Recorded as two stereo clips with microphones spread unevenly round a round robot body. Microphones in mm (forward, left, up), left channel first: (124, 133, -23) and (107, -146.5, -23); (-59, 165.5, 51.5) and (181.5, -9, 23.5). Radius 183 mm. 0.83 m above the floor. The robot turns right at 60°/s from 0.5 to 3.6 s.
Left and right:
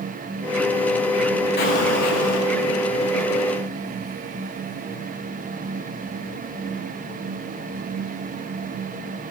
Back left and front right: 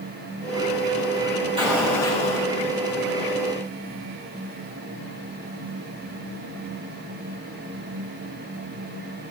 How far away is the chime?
I don't hear a chime.